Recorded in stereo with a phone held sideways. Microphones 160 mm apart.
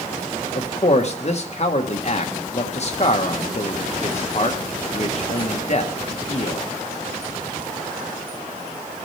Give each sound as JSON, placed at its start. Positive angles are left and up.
{"t": 0.6, "sound": "a man speaking", "side_deg": 45, "distance_m": 1.3}